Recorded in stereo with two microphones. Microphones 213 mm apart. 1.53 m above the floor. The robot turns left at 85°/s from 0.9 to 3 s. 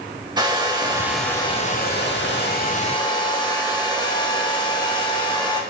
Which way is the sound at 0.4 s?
155° right.